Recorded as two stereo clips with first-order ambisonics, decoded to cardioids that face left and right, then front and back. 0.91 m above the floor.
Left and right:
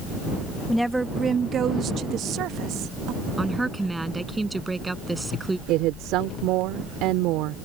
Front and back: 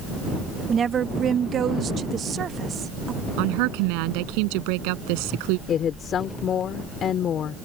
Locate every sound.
0.7 s a woman speaking: 165° left; by 3.2 s 120° right
3.4 s a woman speaking: 175° right
5.7 s a woman speaking: 60° right